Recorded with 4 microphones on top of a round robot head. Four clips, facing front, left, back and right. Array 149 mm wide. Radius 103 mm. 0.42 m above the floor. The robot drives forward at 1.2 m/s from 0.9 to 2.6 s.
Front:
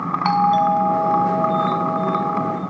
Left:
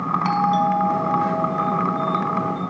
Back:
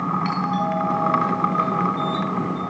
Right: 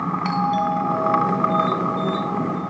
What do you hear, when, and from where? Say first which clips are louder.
0.2 s a doorbell: left 2 dB, front 7 dB; 10° left, 5.5 m; by 2.6 s 15° left, 3.5 m